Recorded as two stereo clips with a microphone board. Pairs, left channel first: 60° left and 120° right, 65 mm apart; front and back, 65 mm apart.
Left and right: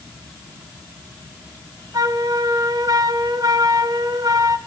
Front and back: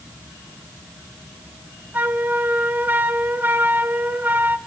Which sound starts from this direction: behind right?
A flute, at 1.9 s.